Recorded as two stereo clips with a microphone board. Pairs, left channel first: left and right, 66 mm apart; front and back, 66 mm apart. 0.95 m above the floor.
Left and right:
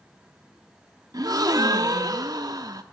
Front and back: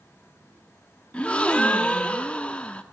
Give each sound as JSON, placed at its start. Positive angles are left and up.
{"t": 1.1, "sound": "a gasp", "azimuth_deg": -70, "distance_m": 1.3}